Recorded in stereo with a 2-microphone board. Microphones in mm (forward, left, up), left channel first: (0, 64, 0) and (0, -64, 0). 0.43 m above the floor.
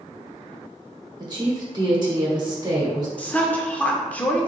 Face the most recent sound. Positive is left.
turn(degrees=10)  # may be behind; listen again after turning